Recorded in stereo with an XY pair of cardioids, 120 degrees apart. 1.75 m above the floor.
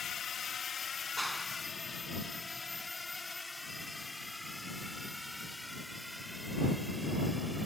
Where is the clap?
10° right.